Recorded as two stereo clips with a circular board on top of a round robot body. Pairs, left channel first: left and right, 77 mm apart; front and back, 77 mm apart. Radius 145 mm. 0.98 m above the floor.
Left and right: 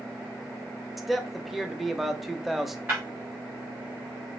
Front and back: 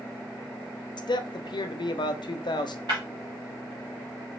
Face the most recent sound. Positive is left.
turn(degrees=-155)